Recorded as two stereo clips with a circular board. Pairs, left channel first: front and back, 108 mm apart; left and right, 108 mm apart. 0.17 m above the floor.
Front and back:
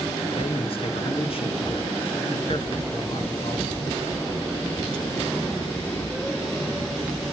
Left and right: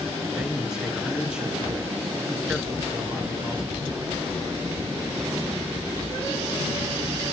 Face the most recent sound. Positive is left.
turn(degrees=-10)